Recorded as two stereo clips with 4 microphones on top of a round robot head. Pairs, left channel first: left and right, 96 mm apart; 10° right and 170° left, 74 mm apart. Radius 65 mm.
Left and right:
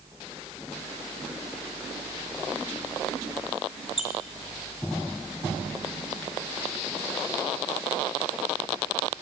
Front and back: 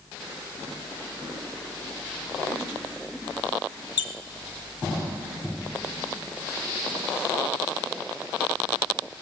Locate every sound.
4.0 s a squeak: straight ahead, 0.9 m